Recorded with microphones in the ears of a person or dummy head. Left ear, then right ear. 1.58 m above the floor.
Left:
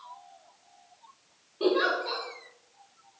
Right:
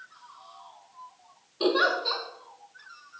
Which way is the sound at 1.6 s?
35° right (ahead or behind).